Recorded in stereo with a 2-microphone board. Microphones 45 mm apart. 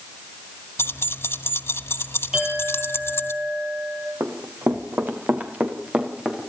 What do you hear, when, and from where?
0.8 s keys jangling: 65° left (ahead or behind), 1.5 m
2.3 s a clink: 15° right (ahead or behind), 9 m
4.2 s running footsteps: 65° right (ahead or behind), 3.5 m; by 6.5 s 15° right (ahead or behind), 4.5 m